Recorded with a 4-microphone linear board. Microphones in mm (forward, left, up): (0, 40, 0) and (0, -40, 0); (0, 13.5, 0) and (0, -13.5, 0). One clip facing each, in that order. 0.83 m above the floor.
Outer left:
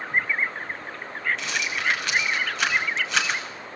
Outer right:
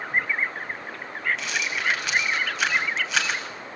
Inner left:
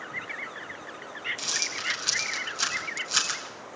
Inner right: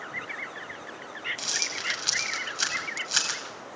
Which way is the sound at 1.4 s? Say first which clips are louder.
Even, even; 5° right (ahead or behind).